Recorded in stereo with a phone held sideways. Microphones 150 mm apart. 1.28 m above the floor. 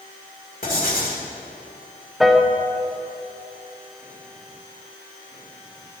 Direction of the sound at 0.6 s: 75° left (ahead or behind).